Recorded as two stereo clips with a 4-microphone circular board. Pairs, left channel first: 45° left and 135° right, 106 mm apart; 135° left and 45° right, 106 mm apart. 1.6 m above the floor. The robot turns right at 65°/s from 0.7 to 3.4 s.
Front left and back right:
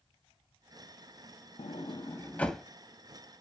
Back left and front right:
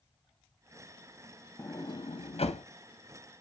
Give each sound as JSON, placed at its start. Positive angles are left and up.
{"t": 1.6, "sound": "a sliding door", "azimuth_deg": 70, "distance_m": 0.6}